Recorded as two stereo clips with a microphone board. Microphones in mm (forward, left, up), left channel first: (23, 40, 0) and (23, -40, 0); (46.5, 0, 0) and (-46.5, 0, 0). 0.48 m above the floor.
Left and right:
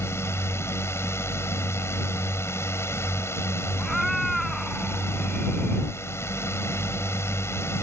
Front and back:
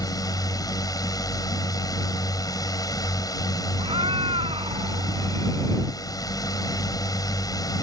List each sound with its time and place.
0.0 s a drone: 40° left
3.8 s a cat meowing: straight behind